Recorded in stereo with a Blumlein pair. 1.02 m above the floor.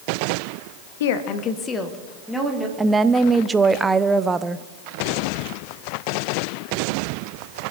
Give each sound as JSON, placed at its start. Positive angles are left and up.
{"t": 1.0, "sound": "a woman speaking", "azimuth_deg": 60, "distance_m": 1.1}
{"t": 2.8, "sound": "a woman speaking", "azimuth_deg": -15, "distance_m": 0.6}